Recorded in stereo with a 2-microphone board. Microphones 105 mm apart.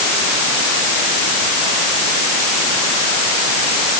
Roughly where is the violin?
I don't hear a violin.